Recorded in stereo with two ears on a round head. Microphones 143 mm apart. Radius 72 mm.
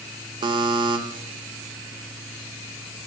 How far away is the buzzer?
About 1.0 m.